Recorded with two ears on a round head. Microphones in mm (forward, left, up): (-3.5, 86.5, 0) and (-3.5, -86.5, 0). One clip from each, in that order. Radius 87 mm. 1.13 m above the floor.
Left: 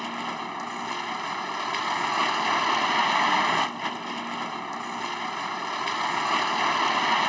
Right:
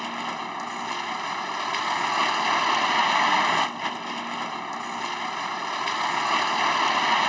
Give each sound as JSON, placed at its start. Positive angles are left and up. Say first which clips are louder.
{"t": 0.0, "sound": "a vehicle", "louder": "right 1 dB", "side_deg": -10}